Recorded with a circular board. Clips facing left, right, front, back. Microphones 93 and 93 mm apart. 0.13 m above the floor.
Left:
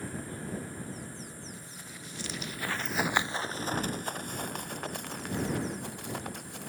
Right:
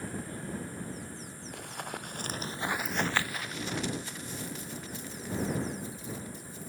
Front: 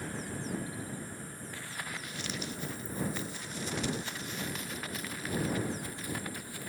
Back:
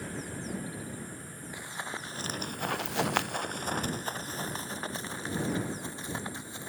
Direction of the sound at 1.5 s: 105° right.